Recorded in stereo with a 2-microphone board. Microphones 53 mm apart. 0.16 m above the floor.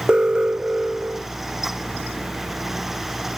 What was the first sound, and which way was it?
An alarm, 15° right (ahead or behind).